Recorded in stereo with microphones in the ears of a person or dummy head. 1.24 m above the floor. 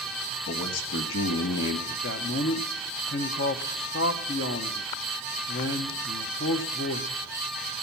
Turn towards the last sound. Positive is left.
turn(degrees=55)  # may be behind; listen again after turning